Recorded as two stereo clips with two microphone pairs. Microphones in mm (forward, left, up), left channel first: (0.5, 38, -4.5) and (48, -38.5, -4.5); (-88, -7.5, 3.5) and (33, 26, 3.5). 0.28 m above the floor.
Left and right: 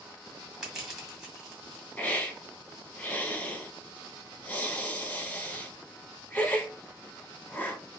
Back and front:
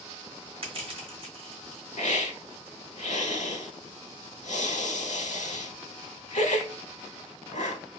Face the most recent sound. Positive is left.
turn(degrees=-165)